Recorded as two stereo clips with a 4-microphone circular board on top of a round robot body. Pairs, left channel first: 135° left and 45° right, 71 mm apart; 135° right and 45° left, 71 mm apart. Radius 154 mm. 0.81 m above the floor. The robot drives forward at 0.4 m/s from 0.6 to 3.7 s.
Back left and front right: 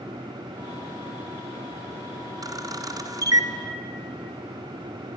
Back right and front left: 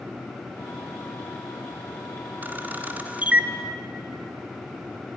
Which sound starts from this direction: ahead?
A camera shutter, at 2.4 s.